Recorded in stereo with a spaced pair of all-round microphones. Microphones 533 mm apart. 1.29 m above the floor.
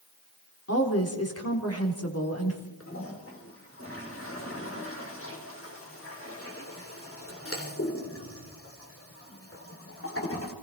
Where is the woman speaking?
25° left (ahead or behind), 4 m.